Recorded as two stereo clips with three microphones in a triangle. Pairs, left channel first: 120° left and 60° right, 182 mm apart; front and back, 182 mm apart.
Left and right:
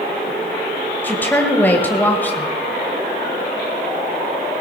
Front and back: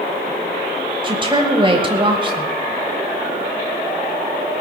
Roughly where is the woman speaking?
Behind.